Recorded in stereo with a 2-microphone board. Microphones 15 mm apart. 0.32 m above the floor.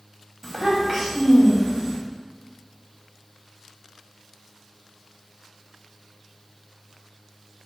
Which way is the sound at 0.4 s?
Centre (ahead or behind).